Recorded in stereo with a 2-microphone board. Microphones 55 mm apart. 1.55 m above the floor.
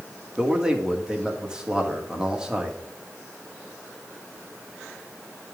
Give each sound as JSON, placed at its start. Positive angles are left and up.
{"t": 0.4, "sound": "a man speaking", "side_deg": -15, "distance_m": 1.9}